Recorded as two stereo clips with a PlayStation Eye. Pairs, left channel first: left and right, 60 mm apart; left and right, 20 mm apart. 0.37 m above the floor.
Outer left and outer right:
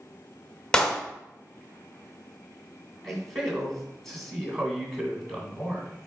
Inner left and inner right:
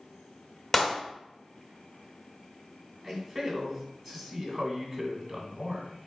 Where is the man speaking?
5° left (ahead or behind), 2.5 m.